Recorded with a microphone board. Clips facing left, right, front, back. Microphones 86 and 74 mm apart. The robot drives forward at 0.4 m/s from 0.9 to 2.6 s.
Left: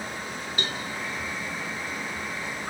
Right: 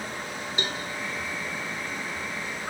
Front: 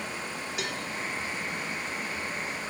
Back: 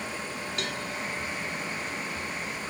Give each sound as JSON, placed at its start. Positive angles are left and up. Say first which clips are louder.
{"t": 0.6, "sound": "a cowbell", "louder": "even, even", "azimuth_deg": -65, "distance_m": 1.3}